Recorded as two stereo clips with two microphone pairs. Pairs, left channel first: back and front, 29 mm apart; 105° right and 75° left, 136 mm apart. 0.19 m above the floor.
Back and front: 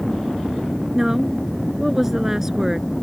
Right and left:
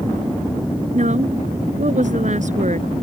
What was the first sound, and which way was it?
A woman speaking, 70° left.